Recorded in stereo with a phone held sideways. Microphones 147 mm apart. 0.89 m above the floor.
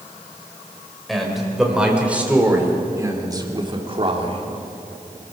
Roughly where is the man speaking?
Centre.